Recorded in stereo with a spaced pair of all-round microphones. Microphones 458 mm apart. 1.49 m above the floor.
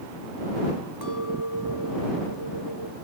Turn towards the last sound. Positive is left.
turn(degrees=-50)  # may be behind; listen again after turning